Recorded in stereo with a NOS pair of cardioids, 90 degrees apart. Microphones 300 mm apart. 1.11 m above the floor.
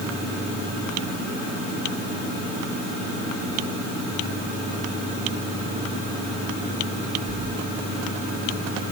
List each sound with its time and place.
Only background noise.